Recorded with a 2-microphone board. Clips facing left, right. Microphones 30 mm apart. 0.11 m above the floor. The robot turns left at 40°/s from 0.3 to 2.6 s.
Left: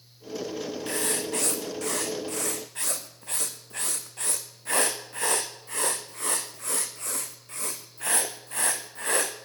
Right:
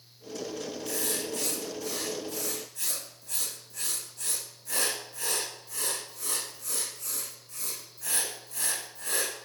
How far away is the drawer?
No drawer in this recording.